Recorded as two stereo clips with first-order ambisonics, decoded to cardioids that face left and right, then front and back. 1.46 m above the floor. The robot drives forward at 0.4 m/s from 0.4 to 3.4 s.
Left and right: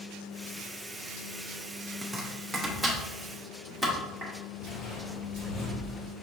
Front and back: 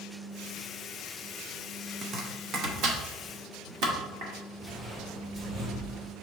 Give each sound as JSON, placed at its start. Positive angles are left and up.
{"t": 2.0, "sound": "chopping", "azimuth_deg": -160, "distance_m": 0.7}
{"t": 4.6, "sound": "footsteps", "azimuth_deg": 110, "distance_m": 1.6}